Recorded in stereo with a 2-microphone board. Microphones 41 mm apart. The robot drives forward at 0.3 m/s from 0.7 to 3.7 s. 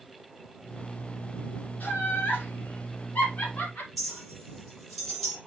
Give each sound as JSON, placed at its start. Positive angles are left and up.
{"t": 1.8, "sound": "laughter", "side_deg": 50, "distance_m": 2.0}
{"t": 4.0, "sound": "a clink", "side_deg": 0, "distance_m": 4.5}